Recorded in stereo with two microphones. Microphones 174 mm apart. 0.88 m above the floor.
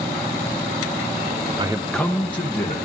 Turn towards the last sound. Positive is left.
turn(degrees=35)  # may be behind; listen again after turning